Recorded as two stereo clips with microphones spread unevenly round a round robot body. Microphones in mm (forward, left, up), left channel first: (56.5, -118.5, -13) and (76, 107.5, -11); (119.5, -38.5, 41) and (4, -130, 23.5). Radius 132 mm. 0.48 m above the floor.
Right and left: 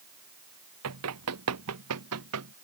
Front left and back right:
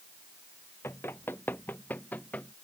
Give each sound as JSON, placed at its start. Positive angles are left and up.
{"t": 0.8, "sound": "running footsteps", "azimuth_deg": 120}